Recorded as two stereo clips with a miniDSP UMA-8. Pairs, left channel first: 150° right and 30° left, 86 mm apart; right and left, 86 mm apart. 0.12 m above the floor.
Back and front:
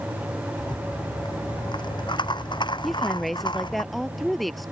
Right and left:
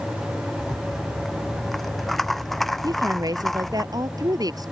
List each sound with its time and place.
0.6 s a rattle: 175° right
2.8 s a woman speaking: 120° left